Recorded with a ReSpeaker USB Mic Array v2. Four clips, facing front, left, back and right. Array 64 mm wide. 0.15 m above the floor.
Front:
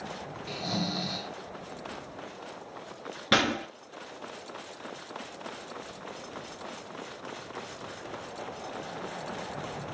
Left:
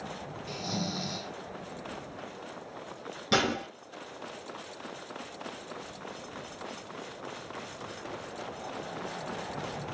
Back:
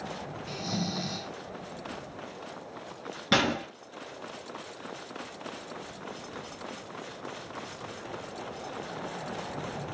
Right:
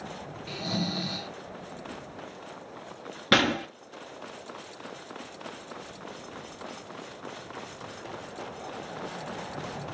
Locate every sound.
0.5 s snoring: 60° right, 1.1 m
3.3 s a gunshot: 80° right, 1.5 m